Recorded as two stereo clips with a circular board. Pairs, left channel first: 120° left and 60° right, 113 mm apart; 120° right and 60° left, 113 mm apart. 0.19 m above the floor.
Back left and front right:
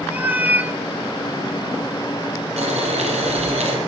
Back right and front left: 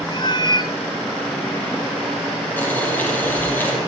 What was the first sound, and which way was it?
A cat meowing, 130° right.